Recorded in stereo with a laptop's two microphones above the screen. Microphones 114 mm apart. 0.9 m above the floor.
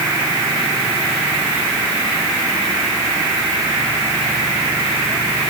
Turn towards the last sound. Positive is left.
No sound to turn to.